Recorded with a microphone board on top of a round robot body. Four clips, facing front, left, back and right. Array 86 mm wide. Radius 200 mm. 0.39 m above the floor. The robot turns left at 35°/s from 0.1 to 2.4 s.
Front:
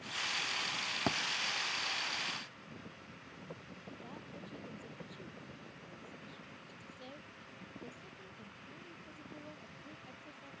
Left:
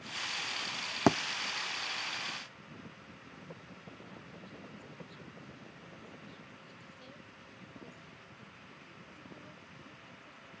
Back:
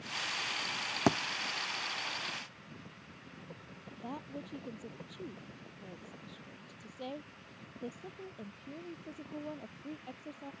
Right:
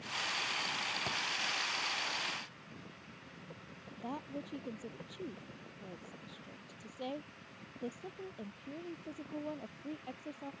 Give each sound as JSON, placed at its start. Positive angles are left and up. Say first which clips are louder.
{"t": 1.1, "sound": "a thud", "louder": "left 18 dB, back 7 dB", "azimuth_deg": 110}
{"t": 4.0, "sound": "a woman speaking", "louder": "right 8 dB, back 11 dB", "azimuth_deg": -120}